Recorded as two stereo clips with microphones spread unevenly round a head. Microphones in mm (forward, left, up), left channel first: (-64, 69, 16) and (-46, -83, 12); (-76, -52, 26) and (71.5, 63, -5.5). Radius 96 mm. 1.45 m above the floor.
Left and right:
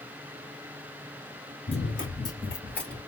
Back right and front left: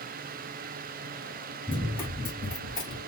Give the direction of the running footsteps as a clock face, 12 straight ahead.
7 o'clock.